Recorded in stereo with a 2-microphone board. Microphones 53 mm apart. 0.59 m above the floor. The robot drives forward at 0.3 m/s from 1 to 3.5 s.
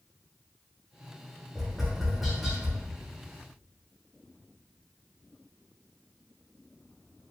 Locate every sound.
1.6 s tapping: centre (ahead or behind), 1.2 m